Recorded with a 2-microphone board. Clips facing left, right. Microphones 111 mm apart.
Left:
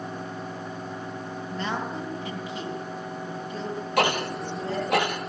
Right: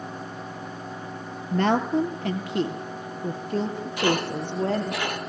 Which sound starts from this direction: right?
A woman speaking, at 1.5 s.